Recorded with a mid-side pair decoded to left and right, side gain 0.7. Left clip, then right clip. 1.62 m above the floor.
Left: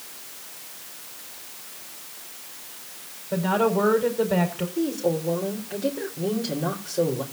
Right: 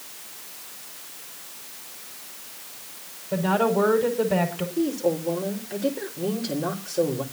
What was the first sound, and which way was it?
A woman speaking, 5° right.